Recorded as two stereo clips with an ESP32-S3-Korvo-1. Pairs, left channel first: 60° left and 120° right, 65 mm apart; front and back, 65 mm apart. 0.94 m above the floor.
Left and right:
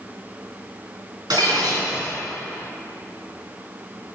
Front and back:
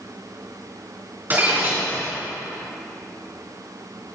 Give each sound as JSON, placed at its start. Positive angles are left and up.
{"t": 1.3, "sound": "breaking glass", "azimuth_deg": -120, "distance_m": 3.5}